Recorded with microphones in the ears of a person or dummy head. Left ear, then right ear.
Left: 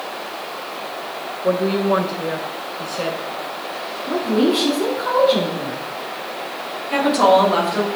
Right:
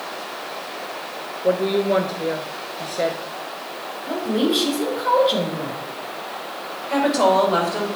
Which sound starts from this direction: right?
A woman speaking, at 4.1 s.